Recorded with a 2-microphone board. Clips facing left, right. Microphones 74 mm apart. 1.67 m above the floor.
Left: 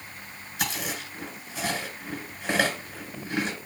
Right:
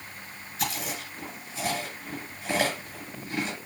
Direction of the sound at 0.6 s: 75° left (ahead or behind).